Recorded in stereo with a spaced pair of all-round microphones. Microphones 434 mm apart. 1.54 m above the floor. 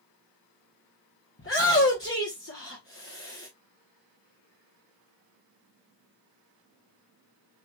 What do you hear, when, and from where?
1.4 s a shout: 30° left (ahead or behind), 0.9 m